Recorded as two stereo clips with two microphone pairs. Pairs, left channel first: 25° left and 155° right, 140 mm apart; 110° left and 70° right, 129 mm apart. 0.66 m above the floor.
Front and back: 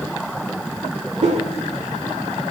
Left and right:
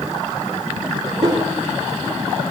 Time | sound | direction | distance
1.2 | a whoosh | 125° right | 1.9 m